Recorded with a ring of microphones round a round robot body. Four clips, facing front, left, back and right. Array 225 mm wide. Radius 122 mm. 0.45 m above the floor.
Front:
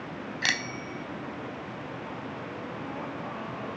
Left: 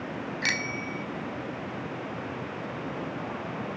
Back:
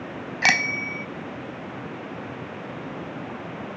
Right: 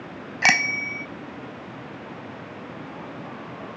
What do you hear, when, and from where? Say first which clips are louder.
0.4 s a bicycle bell: right 13 dB, back 10 dB; 130° right